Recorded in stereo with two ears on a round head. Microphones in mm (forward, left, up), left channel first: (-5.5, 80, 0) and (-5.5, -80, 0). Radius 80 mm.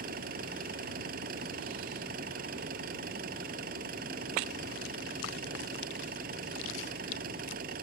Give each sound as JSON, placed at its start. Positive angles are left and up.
{"t": 0.0, "sound": "an engine running", "side_deg": -55}